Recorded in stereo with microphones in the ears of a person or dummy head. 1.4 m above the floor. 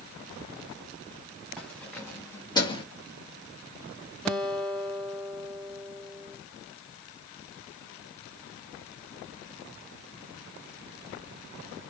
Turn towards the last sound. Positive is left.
turn(degrees=-5)  # may be behind; listen again after turning